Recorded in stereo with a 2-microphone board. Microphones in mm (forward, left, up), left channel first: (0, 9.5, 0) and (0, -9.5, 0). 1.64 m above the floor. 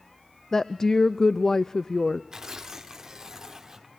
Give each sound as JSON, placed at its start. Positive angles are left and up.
{"t": 0.5, "sound": "a woman speaking", "side_deg": 35, "distance_m": 0.6}
{"t": 2.3, "sound": "tearing paper", "side_deg": -35, "distance_m": 2.0}